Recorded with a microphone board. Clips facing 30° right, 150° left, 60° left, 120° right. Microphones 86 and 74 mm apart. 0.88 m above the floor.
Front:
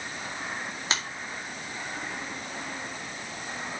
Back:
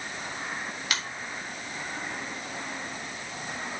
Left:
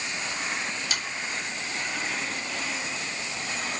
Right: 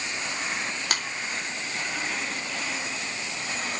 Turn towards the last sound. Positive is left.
turn(degrees=-90)